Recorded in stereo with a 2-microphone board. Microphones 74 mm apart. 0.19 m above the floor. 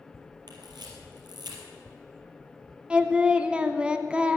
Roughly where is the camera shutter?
Right.